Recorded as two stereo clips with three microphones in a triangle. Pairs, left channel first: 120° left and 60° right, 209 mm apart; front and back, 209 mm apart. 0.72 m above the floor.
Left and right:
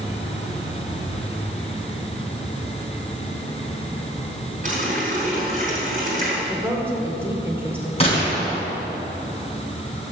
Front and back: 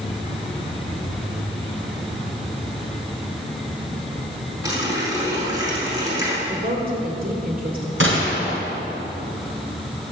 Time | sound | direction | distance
4.6 | a running tap | 105° right | 4.5 m
6.5 | a woman speaking | 140° right | 2.5 m
8.0 | a gunshot | straight behind | 4 m